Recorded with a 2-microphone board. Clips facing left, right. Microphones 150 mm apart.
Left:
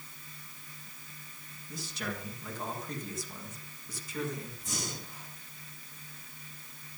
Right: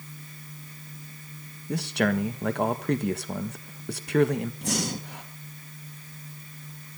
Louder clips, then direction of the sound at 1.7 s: Right 14 dB; 70° right (ahead or behind).